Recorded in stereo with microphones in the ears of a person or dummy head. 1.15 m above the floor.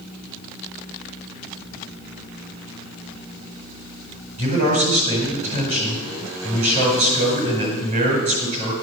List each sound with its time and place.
4.4 s a man speaking: 35° right (ahead or behind), 4 m